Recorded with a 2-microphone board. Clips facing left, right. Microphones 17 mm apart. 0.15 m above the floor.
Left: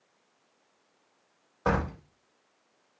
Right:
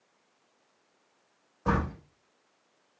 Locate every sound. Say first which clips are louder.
1.6 s a door slam: left 1 dB; 75° left (ahead or behind), 6 m